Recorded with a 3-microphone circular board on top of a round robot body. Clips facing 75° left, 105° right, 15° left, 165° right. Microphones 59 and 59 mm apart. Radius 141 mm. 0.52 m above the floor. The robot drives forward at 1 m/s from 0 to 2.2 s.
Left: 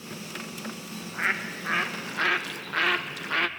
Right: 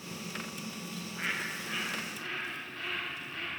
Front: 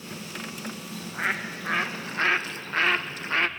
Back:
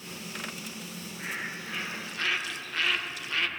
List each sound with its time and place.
0.9 s a bird: 25° left, 1.9 m; by 3.5 s 65° left, 0.9 m